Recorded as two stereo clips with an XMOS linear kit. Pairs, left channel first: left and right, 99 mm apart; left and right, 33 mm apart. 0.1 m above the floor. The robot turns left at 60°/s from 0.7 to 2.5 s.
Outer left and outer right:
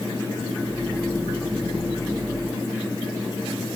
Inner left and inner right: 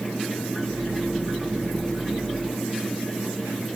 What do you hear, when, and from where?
Only background noise.